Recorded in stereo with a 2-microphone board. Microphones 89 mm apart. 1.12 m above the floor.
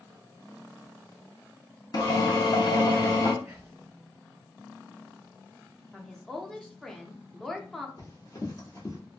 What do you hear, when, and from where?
1.9 s a drill: 50° left (ahead or behind), 0.6 m
3.4 s whispering: 30° right (ahead or behind), 0.8 m
5.9 s a woman speaking: 5° left (ahead or behind), 0.6 m
8.0 s running footsteps: 45° left (ahead or behind), 1.5 m